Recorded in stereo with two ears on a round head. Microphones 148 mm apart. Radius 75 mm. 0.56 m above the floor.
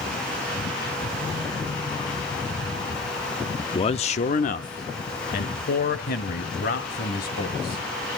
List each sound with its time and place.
3.6 s a man speaking: 20° left (ahead or behind), 0.6 m; by 7.8 s 60° left (ahead or behind), 3 m